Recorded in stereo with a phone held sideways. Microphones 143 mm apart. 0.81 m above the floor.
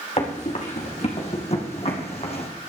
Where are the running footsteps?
50° left (ahead or behind), 3.5 m; by 2.5 s 45° left (ahead or behind), 2.5 m.